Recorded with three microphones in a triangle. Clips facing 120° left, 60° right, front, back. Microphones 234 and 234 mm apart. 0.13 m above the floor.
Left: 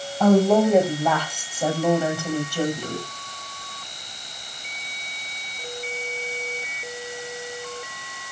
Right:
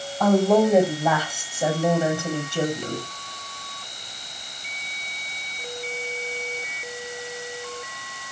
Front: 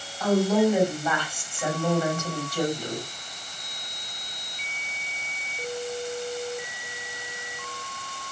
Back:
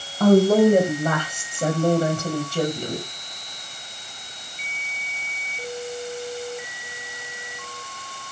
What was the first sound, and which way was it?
A woman speaking, 155° right.